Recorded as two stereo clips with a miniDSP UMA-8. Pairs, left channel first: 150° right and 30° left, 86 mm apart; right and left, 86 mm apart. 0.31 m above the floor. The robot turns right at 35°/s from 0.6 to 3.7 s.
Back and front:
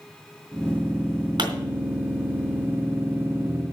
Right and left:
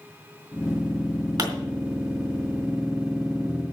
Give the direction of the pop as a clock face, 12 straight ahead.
10 o'clock.